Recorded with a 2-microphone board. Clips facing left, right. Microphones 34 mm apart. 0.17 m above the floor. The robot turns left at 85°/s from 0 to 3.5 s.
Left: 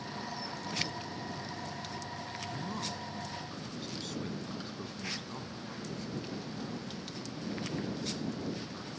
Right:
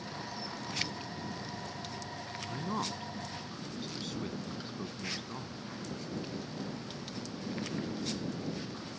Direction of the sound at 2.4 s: 30° right (ahead or behind).